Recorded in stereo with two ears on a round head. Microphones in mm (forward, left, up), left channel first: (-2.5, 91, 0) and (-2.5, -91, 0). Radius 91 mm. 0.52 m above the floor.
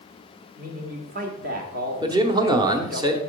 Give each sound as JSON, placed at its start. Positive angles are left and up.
{"t": 0.6, "sound": "a man speaking", "side_deg": -45, "distance_m": 1.7}
{"t": 2.0, "sound": "a man speaking", "side_deg": -20, "distance_m": 1.0}